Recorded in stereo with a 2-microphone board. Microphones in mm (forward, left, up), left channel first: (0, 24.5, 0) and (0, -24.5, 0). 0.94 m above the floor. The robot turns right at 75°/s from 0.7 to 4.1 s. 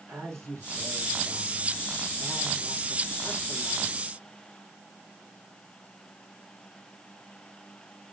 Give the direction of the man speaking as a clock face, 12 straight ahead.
4 o'clock.